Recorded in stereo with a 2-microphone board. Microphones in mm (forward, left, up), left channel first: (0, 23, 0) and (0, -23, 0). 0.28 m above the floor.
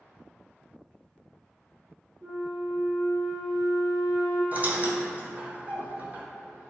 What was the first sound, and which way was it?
A flute, 35° right (ahead or behind).